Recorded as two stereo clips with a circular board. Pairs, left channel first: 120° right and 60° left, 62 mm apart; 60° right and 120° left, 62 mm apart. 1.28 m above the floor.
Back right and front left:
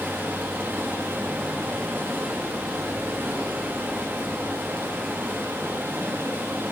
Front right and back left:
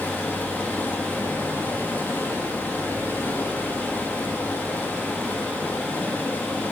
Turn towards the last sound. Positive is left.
turn(degrees=0)